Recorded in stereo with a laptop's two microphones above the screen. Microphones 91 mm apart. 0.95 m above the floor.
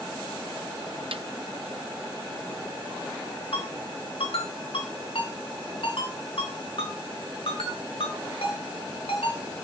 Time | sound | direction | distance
1.1 | a snare drum | 70° right (ahead or behind) | 0.6 m
3.5 | a ringtone | 85° left | 5.5 m